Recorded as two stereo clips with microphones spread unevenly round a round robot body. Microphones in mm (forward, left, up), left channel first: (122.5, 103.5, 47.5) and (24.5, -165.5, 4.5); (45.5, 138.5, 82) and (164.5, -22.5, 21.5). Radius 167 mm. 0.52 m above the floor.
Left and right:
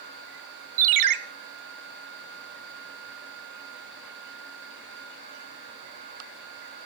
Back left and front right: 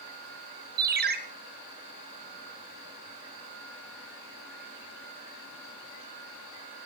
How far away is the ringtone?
About 1.3 m.